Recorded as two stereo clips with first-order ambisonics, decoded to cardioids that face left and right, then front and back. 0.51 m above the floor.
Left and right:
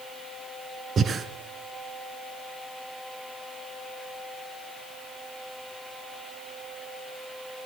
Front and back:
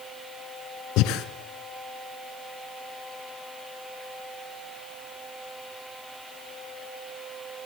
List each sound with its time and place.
1.0 s breathing: 25° right, 1.2 m